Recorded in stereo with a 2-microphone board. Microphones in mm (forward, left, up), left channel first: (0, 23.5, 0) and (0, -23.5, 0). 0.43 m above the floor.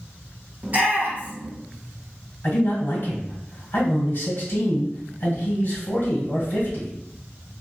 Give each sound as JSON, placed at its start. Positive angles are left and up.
{"t": 0.6, "sound": "a shout", "side_deg": -35, "distance_m": 1.2}
{"t": 2.4, "sound": "a man speaking", "side_deg": 40, "distance_m": 1.9}